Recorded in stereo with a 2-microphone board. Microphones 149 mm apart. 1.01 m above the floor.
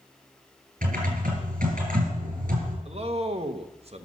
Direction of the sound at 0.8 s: 65° right (ahead or behind).